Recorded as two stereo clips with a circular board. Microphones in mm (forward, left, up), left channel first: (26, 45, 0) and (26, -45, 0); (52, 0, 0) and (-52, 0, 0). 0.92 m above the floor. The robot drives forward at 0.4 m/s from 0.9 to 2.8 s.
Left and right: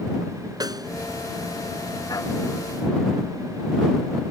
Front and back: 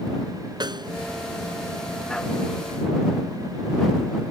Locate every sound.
0.6 s a snare drum: 135° right